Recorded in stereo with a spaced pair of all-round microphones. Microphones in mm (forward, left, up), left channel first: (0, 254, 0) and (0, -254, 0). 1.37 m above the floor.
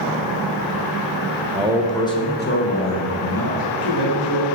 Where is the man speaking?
15° right (ahead or behind), 0.7 m; by 4.5 s 50° left (ahead or behind), 1.9 m.